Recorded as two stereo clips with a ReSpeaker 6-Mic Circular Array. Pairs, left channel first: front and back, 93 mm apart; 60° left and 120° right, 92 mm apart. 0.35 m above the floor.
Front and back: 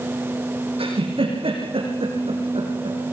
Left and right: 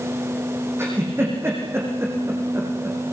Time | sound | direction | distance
0.8 | a giggle | 175° left | 8 m